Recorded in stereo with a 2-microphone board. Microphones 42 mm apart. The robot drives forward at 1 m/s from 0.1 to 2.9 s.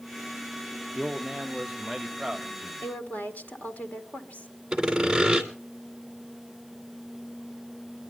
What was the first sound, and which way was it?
A man speaking, 15° right (ahead or behind).